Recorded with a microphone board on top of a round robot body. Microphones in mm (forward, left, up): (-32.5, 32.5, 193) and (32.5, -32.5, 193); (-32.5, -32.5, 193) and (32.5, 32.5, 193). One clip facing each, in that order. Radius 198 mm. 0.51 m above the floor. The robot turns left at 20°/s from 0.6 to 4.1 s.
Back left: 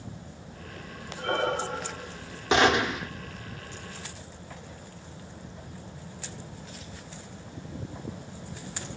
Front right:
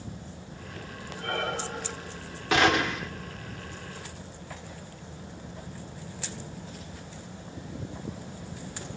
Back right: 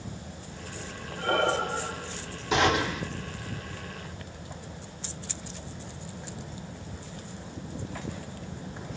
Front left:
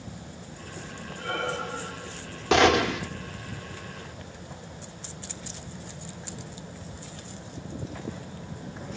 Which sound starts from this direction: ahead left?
A gunshot, at 2.5 s.